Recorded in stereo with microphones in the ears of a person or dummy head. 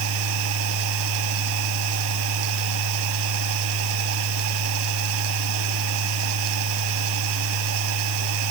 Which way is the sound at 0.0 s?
65° right (ahead or behind).